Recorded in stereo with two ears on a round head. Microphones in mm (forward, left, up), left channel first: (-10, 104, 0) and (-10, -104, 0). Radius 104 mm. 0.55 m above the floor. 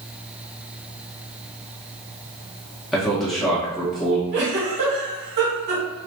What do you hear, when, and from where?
2.9 s a man speaking: centre (ahead or behind), 0.6 m
4.3 s a giggle: 45° right (ahead or behind), 1.7 m